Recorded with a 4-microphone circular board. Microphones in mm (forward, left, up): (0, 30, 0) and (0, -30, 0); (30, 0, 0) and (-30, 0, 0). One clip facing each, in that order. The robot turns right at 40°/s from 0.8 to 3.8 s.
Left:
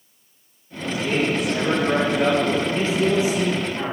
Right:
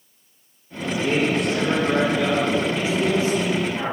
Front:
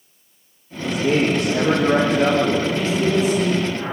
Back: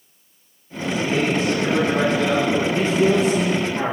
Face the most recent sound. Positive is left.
turn(degrees=180)